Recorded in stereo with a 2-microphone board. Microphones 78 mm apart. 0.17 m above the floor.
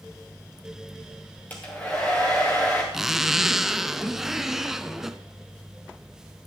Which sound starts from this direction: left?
A hair dryer, at 1.5 s.